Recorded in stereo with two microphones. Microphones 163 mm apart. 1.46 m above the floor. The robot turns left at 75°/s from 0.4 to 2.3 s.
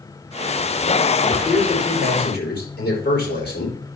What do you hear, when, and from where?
1.2 s a man speaking: 170° left, 5 m; by 4.0 s 90° left, 5 m